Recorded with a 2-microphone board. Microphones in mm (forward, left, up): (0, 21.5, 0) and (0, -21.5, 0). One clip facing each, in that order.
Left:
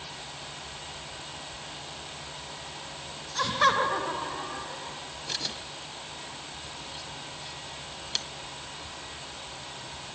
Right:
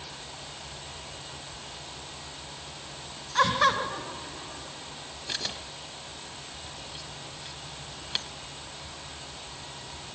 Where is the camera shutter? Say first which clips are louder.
Right 1 dB; 20° right (ahead or behind), 2 m.